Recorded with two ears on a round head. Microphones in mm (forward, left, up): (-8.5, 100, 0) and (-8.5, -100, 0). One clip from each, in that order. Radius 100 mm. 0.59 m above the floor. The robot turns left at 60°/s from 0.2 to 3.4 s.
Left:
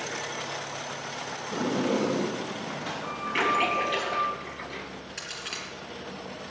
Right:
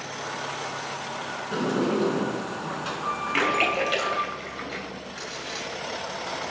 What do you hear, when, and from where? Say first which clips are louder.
1.5 s a sliding door: right 2 dB; 50° right, 4 m; by 4.3 s 160° right, 4 m
3.3 s a splash: right 1 dB; 50° right (ahead or behind), 3.5 m
5.2 s a crack: right 1 dB; 40° left (ahead or behind), 6 m